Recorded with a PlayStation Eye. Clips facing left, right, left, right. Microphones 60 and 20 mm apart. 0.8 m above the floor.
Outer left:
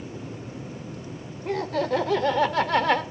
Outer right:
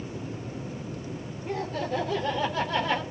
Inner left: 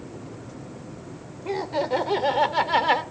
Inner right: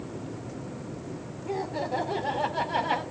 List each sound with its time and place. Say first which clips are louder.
1.4 s laughter: outer left 5 dB, inner left 5 dB; 75° left (ahead or behind), 3 m; by 3.0 s 70° left (ahead or behind), 2.5 m